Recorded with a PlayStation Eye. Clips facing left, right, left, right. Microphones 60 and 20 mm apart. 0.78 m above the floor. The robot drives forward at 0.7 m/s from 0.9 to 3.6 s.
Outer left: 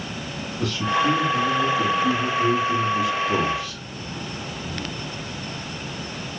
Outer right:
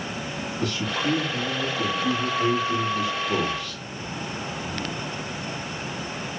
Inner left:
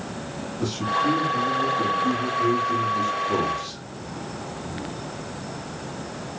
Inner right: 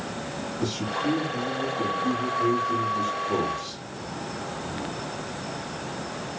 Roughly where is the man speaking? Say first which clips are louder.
Outer left 6 dB, inner left 5 dB; centre.